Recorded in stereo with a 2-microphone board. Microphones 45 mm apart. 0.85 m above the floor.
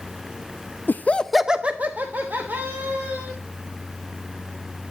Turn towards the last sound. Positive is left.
turn(degrees=-55)  # may be behind; listen again after turning